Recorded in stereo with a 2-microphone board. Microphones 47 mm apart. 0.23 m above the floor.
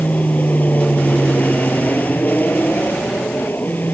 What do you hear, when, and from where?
0.0 s an aircraft: 30° left (ahead or behind); by 4.0 s 40° left (ahead or behind)